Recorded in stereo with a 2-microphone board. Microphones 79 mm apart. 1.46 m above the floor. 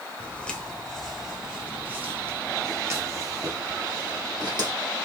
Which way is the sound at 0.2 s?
15° left (ahead or behind).